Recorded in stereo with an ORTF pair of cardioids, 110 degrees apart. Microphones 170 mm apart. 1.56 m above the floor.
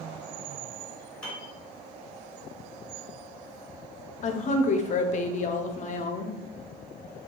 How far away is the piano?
About 1.5 m.